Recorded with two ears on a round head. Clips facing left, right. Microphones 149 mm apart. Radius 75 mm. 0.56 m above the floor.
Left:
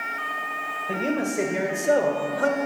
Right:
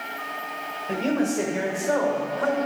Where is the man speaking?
Centre (ahead or behind), 2 m; by 2.6 s 50° left (ahead or behind), 1.7 m.